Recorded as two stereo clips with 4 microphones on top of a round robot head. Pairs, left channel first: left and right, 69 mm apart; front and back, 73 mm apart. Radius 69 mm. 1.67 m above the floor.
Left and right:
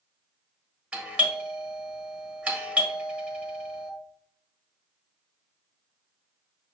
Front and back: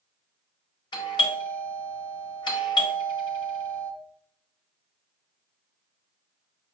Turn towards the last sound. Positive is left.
turn(degrees=-20)